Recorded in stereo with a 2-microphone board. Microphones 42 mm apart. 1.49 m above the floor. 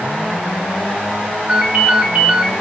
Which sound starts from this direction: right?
A ringtone, at 1.5 s.